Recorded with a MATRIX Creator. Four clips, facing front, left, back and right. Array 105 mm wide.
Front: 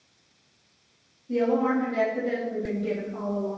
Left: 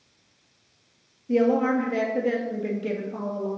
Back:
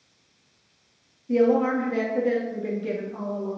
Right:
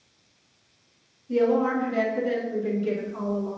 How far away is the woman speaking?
About 2.5 m.